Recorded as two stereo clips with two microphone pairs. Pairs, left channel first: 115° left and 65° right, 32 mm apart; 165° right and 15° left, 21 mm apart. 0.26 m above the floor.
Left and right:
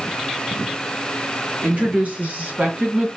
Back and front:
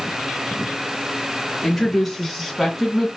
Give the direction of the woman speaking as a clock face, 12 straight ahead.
3 o'clock.